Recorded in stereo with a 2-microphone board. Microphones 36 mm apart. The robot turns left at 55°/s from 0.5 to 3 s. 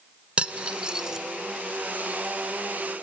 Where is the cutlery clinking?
35° right (ahead or behind), 0.7 m; by 1.2 s 15° right (ahead or behind), 0.7 m.